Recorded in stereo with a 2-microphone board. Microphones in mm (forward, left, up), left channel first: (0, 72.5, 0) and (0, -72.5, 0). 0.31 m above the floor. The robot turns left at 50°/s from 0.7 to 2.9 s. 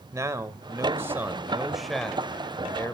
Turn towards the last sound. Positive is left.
turn(degrees=20)  # may be behind; listen again after turning